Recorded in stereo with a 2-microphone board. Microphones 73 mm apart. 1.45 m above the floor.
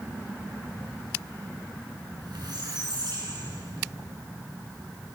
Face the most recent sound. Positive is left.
turn(degrees=-75)  # may be behind; listen again after turning